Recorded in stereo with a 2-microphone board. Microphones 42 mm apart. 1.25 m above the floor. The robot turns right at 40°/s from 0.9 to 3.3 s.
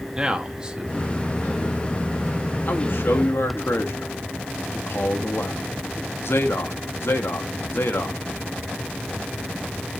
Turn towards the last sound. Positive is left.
turn(degrees=65)  # may be behind; listen again after turning